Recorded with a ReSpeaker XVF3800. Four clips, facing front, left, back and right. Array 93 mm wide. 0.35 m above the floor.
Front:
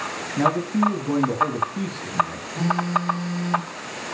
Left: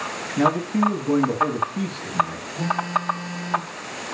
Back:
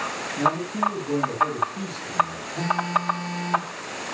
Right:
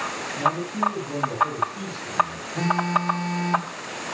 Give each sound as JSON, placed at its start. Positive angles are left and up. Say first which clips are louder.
{"t": 0.4, "sound": "a man speaking", "louder": "left 4 dB, front 3 dB", "azimuth_deg": 55, "distance_m": 3.5}
{"t": 2.5, "sound": "a phone buzzing", "louder": "right 1 dB, front 1 dB", "azimuth_deg": -80, "distance_m": 5.5}